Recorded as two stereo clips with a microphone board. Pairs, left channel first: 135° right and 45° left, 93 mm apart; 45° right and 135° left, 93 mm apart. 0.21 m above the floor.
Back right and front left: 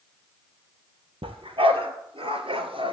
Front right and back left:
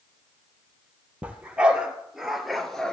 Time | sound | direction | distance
1.2 | a dog barking | 60° left | 1.9 m